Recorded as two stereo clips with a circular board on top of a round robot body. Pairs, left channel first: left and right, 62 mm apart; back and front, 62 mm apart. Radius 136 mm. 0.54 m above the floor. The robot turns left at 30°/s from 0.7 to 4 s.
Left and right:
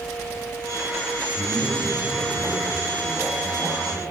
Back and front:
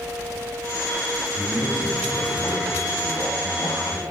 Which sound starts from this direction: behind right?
A man speaking, at 1.4 s.